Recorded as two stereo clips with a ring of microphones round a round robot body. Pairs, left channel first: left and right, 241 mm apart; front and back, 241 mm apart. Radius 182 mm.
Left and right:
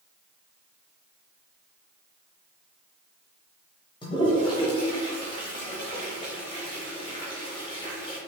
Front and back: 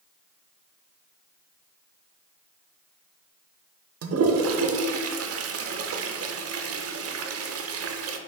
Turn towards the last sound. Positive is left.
turn(degrees=160)